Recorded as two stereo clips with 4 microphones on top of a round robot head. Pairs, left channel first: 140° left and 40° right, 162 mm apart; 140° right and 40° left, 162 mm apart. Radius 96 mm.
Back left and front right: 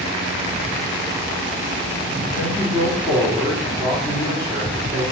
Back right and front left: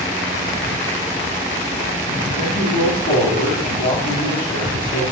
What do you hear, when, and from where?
2.3 s a man speaking: 135° right, 4.5 m